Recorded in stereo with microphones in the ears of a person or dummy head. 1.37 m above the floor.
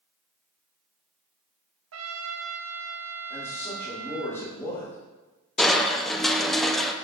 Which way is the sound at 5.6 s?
Centre (ahead or behind).